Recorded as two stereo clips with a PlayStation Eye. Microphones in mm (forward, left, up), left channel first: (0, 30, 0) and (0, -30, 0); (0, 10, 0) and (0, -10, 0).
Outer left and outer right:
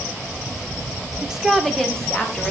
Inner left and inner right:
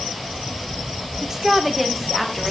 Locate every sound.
1.2 s a woman speaking: 15° right (ahead or behind), 1.7 m; by 2.5 s 20° left (ahead or behind), 2.5 m